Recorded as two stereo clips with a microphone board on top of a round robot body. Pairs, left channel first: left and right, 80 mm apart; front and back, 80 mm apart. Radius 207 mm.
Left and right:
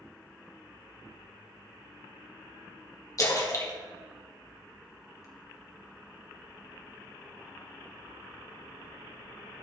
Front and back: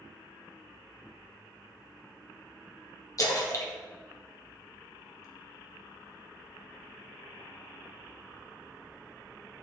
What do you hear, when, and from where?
3.2 s a splash: 45° left, 2 m